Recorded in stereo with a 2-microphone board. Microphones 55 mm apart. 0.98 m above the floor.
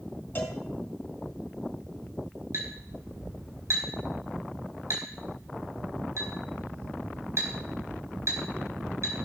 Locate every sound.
0.3 s a cowbell: 35° left (ahead or behind), 3 m
2.5 s a clink: 55° right (ahead or behind), 4 m